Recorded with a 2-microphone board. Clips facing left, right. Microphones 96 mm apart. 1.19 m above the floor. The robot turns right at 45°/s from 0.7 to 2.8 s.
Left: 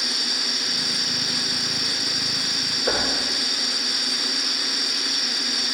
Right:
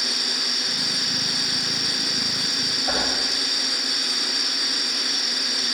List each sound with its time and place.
2.9 s knocking: 75° left (ahead or behind), 3.5 m